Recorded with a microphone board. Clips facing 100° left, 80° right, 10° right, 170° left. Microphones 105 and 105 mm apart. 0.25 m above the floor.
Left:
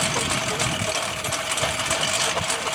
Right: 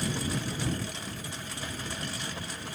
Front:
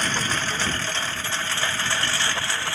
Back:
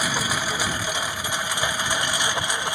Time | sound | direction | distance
0.0 | a lawn mower | 90° left | ?